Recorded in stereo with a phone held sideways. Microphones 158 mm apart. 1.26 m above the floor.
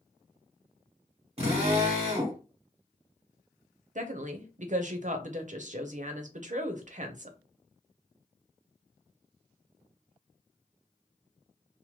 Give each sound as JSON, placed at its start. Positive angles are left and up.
{"t": 1.4, "sound": "a drill", "side_deg": -40, "distance_m": 1.5}
{"t": 4.0, "sound": "a woman speaking", "side_deg": -50, "distance_m": 0.6}